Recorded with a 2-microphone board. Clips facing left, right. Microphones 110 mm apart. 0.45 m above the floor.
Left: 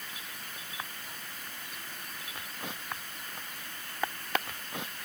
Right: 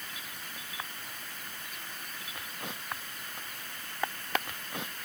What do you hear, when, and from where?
Only background noise.